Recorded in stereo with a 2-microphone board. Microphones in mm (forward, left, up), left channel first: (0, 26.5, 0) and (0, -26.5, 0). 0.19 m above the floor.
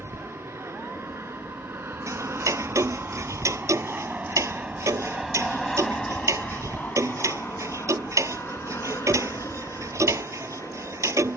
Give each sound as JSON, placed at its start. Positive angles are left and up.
{"t": 0.0, "sound": "an aircraft", "side_deg": -65}
{"t": 2.1, "sound": "ticking", "side_deg": -70}